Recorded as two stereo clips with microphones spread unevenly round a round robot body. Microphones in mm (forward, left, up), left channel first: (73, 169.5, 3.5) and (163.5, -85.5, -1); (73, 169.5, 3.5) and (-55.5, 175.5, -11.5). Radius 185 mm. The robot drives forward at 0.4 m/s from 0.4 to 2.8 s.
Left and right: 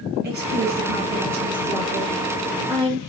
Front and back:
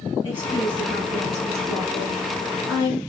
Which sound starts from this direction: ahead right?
A woman speaking, at 0.2 s.